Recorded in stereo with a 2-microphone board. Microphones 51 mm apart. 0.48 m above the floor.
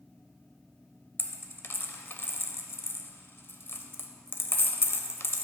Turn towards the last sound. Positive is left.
turn(degrees=45)  # may be behind; listen again after turning